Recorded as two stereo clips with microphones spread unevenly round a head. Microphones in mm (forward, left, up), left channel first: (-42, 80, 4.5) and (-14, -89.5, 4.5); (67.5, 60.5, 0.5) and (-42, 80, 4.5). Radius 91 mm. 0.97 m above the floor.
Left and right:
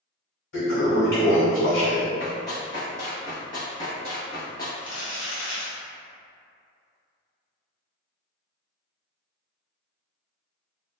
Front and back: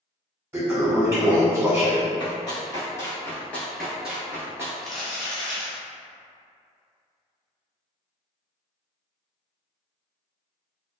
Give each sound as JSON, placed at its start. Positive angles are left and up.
{"t": 0.5, "sound": "a toilet flushing", "azimuth_deg": 105, "distance_m": 1.5}
{"t": 2.2, "sound": "running footsteps", "azimuth_deg": 35, "distance_m": 1.5}
{"t": 4.8, "sound": "crumpling", "azimuth_deg": 80, "distance_m": 1.4}